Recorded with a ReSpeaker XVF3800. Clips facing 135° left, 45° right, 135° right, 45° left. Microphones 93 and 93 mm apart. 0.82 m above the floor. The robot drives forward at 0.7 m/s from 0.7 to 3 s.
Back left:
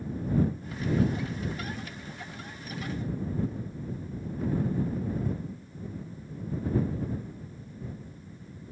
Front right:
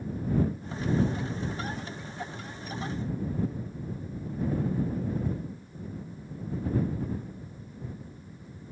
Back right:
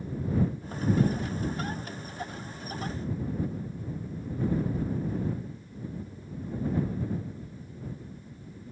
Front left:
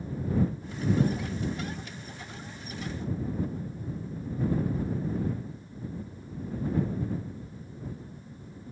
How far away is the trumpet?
I don't hear a trumpet.